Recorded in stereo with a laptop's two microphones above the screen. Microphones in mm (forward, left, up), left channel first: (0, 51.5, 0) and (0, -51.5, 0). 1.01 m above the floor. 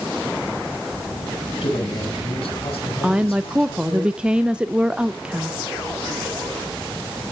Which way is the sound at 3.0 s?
10° right (ahead or behind).